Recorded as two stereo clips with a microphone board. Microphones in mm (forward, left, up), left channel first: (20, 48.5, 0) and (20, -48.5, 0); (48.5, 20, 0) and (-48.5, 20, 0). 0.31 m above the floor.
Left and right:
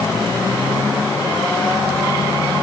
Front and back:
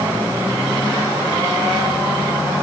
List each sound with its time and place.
Only background noise.